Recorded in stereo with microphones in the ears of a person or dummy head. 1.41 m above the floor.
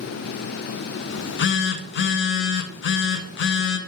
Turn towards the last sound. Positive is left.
turn(degrees=55)  # may be behind; listen again after turning